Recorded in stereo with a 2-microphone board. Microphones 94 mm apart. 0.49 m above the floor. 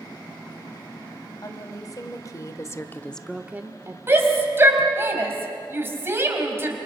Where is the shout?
25° right (ahead or behind), 3.5 m.